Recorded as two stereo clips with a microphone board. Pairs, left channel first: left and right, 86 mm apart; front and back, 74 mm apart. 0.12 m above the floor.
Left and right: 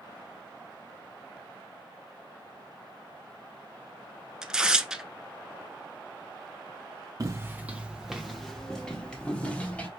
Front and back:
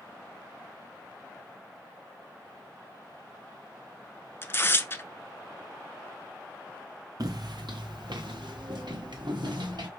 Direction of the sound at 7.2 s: 140° right.